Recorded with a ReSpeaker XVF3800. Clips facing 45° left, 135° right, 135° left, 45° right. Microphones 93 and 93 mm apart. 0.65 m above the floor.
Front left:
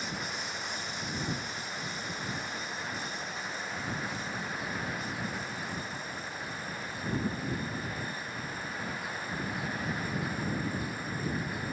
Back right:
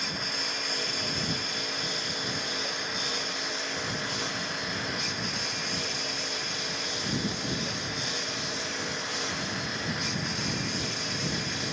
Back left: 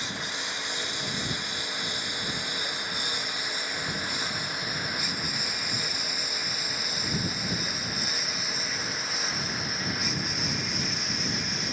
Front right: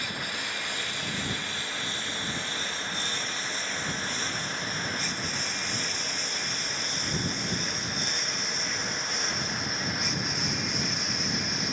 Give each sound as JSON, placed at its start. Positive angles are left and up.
{"t": 0.0, "sound": "a lawn mower", "azimuth_deg": -155}